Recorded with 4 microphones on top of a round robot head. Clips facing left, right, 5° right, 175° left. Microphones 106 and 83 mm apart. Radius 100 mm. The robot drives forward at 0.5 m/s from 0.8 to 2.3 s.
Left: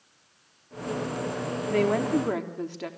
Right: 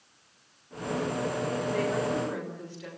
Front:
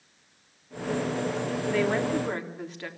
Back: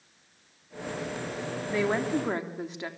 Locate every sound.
1.7 s a woman speaking: 100° left, 3.5 m; by 2.9 s 105° left, 3.5 m